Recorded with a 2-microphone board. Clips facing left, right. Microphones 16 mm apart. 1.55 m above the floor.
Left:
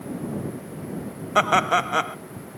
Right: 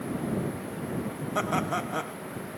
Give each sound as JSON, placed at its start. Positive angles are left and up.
{"t": 1.4, "sound": "laughter", "side_deg": 50}